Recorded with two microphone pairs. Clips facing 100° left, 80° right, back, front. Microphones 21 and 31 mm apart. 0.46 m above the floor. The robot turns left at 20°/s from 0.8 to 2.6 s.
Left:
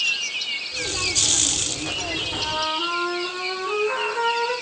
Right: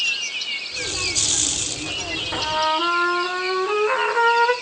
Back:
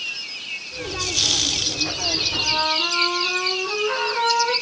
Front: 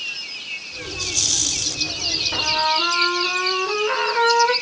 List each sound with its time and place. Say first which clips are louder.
2.3 s a trumpet: right 6 dB, front 3 dB; 50° right, 1.0 m; by 4.5 s 55° right, 1.0 m